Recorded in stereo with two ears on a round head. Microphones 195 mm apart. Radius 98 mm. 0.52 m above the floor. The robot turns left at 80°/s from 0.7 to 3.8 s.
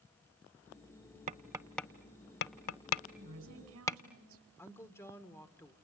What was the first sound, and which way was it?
Tapping, 35° right (ahead or behind).